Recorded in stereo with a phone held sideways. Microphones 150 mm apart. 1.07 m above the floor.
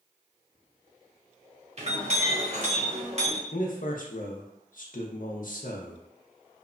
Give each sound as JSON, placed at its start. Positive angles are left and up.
{"t": 1.8, "sound": "a clink", "side_deg": -50, "distance_m": 0.8}
{"t": 3.5, "sound": "a man speaking", "side_deg": 65, "distance_m": 0.6}